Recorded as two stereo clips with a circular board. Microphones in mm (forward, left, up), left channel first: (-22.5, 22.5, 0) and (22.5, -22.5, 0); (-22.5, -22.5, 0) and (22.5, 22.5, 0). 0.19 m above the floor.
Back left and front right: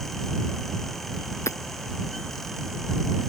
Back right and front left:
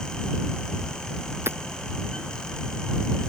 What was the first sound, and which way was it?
Hammering, 95° left.